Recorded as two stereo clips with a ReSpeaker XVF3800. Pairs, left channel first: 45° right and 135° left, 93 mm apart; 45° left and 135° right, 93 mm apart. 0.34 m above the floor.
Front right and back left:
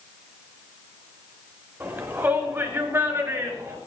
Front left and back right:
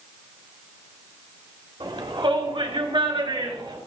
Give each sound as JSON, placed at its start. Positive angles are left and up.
{"t": 1.8, "sound": "a shout", "azimuth_deg": -155, "distance_m": 3.5}